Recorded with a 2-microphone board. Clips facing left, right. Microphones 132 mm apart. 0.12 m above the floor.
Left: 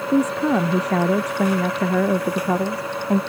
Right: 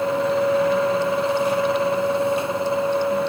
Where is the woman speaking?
80° left.